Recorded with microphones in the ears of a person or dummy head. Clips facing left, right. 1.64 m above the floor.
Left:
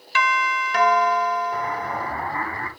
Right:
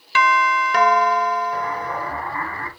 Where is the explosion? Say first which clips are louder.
Right 1 dB; 30° left (ahead or behind), 3 m.